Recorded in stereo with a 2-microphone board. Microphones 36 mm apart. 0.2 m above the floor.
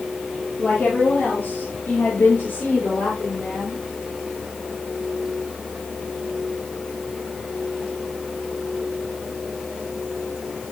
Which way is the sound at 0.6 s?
70° left (ahead or behind).